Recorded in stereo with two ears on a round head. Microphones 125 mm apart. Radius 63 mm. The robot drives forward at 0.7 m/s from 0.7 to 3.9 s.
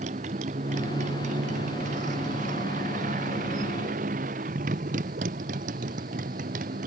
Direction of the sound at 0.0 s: 50° right (ahead or behind).